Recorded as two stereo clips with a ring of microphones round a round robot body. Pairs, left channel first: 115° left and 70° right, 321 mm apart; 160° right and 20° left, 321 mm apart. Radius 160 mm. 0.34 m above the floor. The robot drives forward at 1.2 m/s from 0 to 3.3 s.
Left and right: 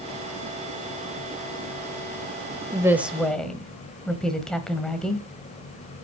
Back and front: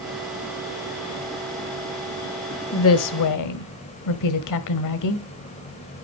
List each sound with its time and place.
2.7 s a woman speaking: 135° right, 1.1 m; by 5.2 s 160° right, 1.5 m